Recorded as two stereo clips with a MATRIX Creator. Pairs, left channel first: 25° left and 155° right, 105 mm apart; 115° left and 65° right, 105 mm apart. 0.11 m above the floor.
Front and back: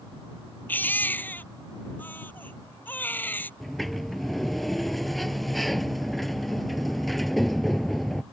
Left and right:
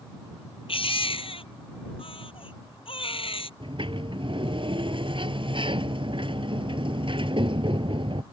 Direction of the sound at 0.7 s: 95° left.